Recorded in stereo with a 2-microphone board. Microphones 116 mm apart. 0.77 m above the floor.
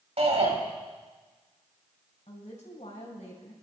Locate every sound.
0.2 s a shout: 65° right (ahead or behind), 4.5 m
2.3 s a woman speaking: 75° left (ahead or behind), 4 m